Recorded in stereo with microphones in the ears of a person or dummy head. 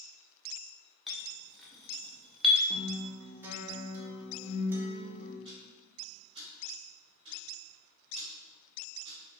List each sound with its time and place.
1.1 s a clink: centre (ahead or behind), 0.5 m
2.7 s a guitar: 10° right (ahead or behind), 0.6 m
5.5 s ticking: 30° right (ahead or behind), 1.7 m